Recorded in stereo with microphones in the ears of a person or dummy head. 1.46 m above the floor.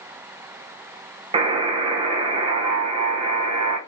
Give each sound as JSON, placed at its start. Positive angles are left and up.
{"t": 1.3, "sound": "a buzzer", "side_deg": -25, "distance_m": 0.6}